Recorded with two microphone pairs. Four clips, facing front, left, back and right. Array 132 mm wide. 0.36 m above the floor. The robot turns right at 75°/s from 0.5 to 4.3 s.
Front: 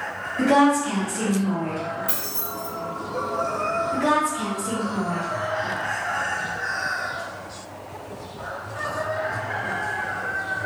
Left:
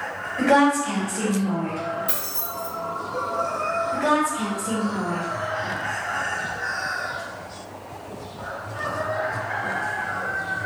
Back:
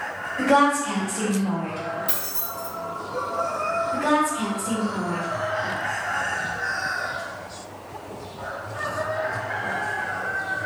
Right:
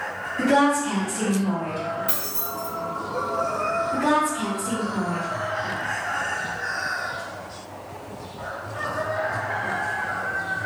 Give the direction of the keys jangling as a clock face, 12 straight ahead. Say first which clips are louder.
Right 1 dB, front 1 dB; 3 o'clock.